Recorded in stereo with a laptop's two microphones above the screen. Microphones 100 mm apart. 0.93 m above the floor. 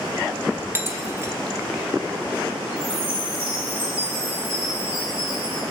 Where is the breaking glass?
25° right (ahead or behind), 1.7 m.